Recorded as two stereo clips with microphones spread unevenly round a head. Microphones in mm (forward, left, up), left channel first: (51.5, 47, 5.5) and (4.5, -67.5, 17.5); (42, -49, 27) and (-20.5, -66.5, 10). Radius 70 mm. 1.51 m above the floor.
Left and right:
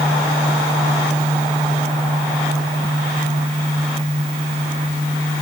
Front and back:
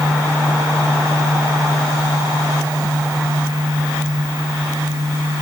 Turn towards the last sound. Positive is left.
No sound to turn to.